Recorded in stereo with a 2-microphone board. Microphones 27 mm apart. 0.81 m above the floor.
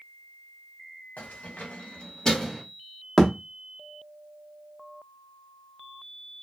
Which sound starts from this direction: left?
Keys jangling, at 1.2 s.